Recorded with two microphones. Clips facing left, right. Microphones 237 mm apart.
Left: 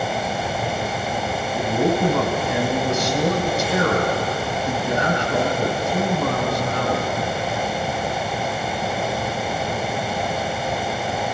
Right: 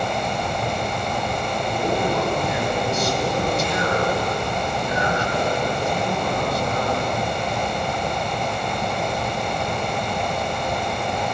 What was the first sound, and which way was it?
A man speaking, 65° left (ahead or behind).